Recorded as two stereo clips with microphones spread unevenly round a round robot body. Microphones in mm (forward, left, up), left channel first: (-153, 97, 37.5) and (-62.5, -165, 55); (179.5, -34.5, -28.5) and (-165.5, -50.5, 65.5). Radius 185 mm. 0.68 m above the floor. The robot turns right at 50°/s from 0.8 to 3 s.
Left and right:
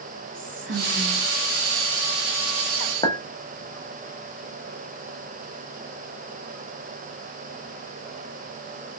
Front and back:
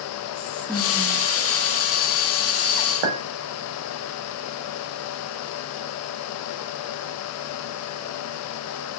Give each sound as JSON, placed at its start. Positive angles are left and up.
{"t": 0.3, "sound": "whispering", "azimuth_deg": -55, "distance_m": 0.6}
{"t": 3.0, "sound": "a clink", "azimuth_deg": -175, "distance_m": 0.8}